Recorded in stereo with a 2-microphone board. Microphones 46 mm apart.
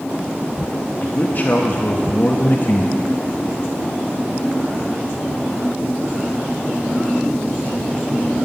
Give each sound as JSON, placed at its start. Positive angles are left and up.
{"t": 1.0, "sound": "a man speaking", "side_deg": 45, "distance_m": 0.9}